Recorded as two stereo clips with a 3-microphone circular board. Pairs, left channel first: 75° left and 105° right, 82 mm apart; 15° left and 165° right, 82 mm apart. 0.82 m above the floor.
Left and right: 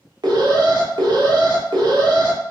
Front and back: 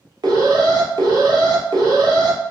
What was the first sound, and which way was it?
An alarm, 135° right.